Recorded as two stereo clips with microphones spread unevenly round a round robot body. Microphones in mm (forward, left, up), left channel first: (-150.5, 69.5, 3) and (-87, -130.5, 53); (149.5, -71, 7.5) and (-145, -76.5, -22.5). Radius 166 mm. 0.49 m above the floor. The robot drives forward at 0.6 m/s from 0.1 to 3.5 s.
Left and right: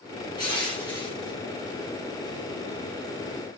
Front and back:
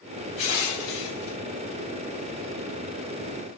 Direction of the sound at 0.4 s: 30° left.